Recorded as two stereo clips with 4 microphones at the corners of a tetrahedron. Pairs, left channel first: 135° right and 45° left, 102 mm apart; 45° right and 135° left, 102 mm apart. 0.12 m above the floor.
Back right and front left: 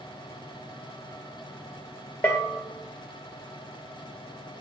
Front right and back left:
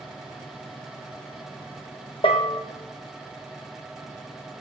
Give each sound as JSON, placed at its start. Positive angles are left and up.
{"t": 2.2, "sound": "a bell", "azimuth_deg": -60, "distance_m": 1.2}